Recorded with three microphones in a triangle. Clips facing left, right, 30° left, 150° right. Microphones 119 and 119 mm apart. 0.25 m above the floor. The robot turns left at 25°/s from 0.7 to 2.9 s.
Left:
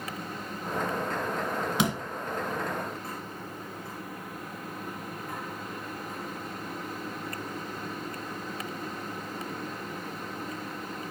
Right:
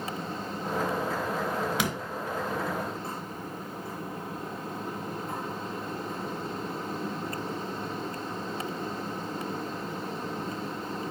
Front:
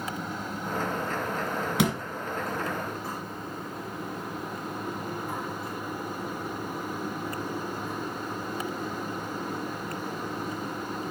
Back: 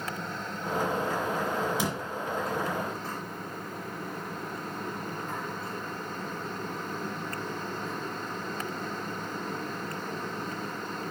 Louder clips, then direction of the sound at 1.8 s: Left 3 dB, front 5 dB; 25° left.